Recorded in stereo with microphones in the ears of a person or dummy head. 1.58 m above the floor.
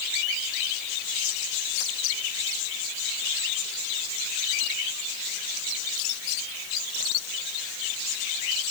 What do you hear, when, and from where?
Only background noise.